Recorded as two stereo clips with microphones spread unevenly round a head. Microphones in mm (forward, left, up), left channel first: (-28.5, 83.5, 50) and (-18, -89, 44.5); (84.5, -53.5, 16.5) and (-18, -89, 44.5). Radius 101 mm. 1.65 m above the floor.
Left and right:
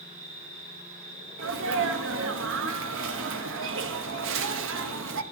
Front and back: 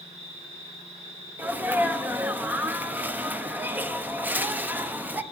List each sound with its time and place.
0.0 s an insect: 135° right, 2.5 m
1.4 s a sneeze: 90° right, 1.0 m